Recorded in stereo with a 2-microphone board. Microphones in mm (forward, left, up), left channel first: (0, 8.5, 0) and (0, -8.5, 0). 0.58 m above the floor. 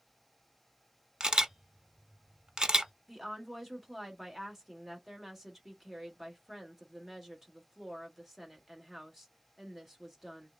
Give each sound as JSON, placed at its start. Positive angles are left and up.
{"t": 1.2, "sound": "a camera shutter", "side_deg": -50, "distance_m": 0.7}
{"t": 3.1, "sound": "a woman speaking", "side_deg": -10, "distance_m": 1.4}